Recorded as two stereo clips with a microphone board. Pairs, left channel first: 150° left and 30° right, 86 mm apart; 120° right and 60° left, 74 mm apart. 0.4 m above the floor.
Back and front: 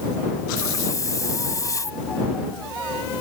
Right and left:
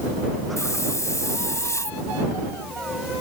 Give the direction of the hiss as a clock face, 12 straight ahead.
5 o'clock.